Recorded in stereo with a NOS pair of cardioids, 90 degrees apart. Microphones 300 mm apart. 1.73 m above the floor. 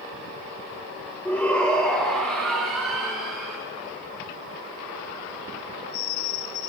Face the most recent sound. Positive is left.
turn(degrees=0)